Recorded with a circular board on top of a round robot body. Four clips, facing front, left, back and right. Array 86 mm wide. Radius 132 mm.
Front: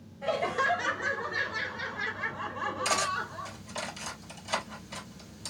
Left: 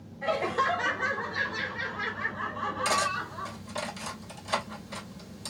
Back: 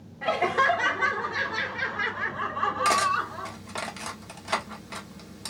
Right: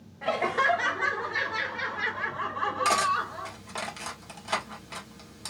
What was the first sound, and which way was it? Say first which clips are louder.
Laughter: right 2 dB, back 5 dB; 155° right.